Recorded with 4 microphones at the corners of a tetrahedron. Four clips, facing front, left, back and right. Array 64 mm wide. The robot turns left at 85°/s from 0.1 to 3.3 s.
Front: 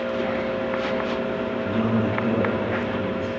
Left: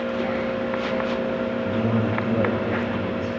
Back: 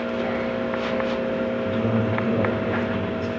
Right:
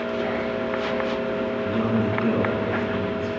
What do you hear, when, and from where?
1.6 s a man speaking: 35° right, 9.5 m; by 3.3 s 175° right, 9.5 m